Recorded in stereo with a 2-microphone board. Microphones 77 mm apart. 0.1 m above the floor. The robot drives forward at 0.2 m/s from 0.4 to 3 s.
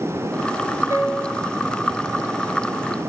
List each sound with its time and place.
0.9 s a piano: 30° right (ahead or behind), 1.7 m